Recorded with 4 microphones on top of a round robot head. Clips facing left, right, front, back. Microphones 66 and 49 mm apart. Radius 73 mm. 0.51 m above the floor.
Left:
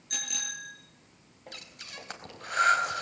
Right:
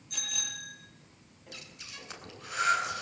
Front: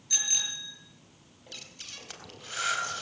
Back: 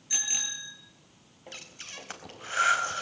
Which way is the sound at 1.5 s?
125° left.